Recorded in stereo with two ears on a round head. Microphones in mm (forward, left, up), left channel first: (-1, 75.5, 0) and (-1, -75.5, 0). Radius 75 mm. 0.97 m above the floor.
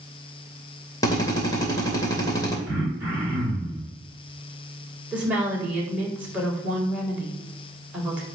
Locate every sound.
1.0 s a drill: 20° left (ahead or behind), 2.5 m
2.7 s throat clearing: 15° right (ahead or behind), 5 m
5.1 s a woman speaking: 10° right (ahead or behind), 4 m